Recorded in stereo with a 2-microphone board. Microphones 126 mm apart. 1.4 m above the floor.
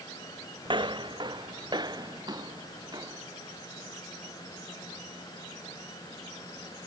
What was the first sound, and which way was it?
Footsteps, 40° right (ahead or behind).